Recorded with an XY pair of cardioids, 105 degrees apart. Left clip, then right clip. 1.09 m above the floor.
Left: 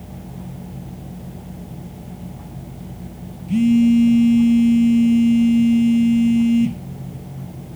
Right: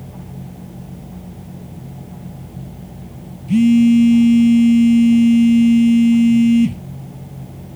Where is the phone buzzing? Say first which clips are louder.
Right 3 dB; 30° right, 1.1 m.